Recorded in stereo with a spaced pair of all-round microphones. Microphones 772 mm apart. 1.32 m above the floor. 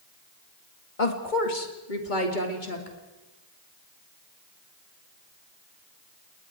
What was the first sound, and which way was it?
A woman speaking, 75° left (ahead or behind).